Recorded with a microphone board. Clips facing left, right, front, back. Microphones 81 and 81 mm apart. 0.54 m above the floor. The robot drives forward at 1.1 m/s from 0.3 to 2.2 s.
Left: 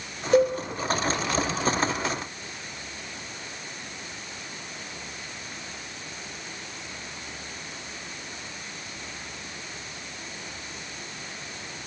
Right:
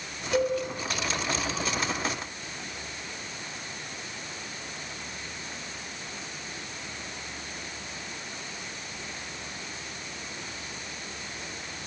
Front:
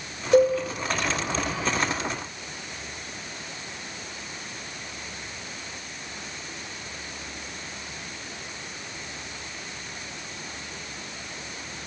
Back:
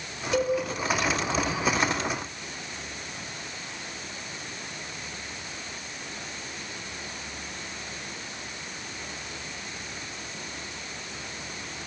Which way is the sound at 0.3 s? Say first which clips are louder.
Left 6 dB, front 7 dB; 45° left.